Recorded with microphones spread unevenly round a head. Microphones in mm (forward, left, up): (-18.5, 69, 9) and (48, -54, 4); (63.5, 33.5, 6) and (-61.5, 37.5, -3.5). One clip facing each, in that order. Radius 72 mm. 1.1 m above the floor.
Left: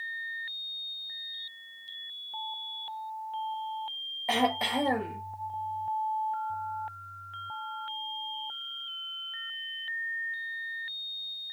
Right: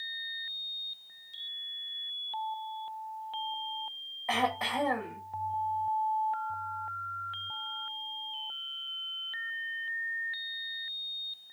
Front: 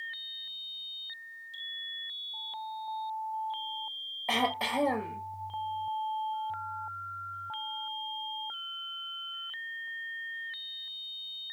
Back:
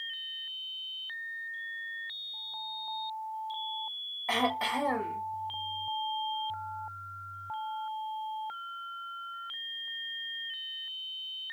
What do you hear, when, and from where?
4.3 s throat clearing: 60° left, 1.4 m